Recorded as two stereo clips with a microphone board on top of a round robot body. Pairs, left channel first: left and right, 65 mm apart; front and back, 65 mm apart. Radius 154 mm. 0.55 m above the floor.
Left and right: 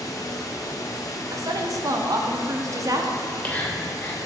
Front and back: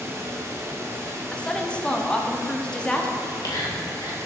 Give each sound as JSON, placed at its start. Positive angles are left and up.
{"t": 0.0, "sound": "running water", "azimuth_deg": 125, "distance_m": 0.9}
{"t": 1.3, "sound": "a woman speaking", "azimuth_deg": -75, "distance_m": 1.2}
{"t": 3.2, "sound": "whispering", "azimuth_deg": 20, "distance_m": 2.5}